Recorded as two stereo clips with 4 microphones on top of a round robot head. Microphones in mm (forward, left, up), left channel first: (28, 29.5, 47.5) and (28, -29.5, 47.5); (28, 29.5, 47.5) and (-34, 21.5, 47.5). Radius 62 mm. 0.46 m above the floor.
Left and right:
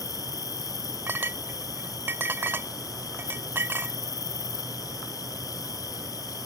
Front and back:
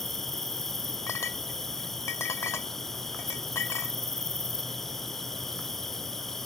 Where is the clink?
40° right.